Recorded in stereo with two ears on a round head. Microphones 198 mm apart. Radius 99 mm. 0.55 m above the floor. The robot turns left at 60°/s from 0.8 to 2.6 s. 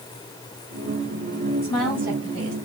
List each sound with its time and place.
1.6 s a woman speaking: 15° left, 3 m; by 2.5 s 40° right, 3 m